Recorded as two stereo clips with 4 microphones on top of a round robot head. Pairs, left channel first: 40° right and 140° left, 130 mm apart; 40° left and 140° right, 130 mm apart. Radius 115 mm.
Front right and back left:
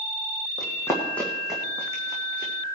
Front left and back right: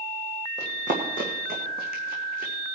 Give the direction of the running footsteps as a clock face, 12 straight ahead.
3 o'clock.